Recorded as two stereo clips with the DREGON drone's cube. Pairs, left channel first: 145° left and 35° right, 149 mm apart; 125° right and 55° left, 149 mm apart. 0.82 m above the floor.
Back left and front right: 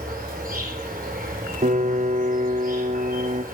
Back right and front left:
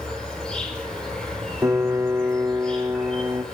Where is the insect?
40° right, 4.5 m.